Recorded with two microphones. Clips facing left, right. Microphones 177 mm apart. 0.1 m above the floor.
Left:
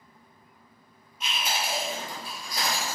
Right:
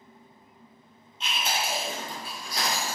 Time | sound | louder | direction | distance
1.2 | chewing | right 1 dB | 25° right (ahead or behind) | 1.4 m